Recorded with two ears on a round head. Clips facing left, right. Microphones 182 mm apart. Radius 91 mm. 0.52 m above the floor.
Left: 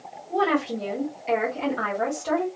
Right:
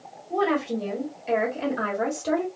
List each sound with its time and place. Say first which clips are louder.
0.3 s a woman speaking: even; 5° left (ahead or behind), 1.4 m; by 2.5 s 25° right (ahead or behind), 1.2 m